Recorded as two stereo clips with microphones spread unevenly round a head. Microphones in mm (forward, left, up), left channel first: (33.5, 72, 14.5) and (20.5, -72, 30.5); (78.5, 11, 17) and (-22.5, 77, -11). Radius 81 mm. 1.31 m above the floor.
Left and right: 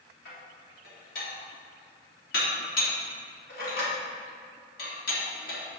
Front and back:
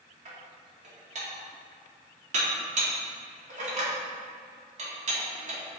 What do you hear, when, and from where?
0.2 s dishes clattering: 120° left, 2 m